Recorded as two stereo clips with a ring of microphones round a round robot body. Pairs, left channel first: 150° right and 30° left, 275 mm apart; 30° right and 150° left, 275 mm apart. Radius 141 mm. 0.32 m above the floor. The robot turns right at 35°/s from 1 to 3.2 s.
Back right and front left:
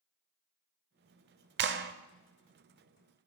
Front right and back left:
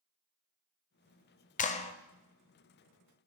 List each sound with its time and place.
1.6 s a clap: 15° left, 0.8 m; by 1.9 s 25° left, 0.8 m